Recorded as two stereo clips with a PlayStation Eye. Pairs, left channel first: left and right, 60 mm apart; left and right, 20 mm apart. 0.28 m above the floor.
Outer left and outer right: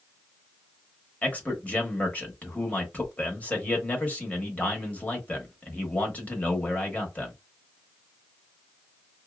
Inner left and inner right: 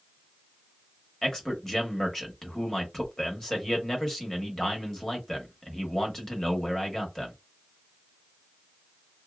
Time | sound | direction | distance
1.2 | a man speaking | 25° left (ahead or behind) | 1.0 m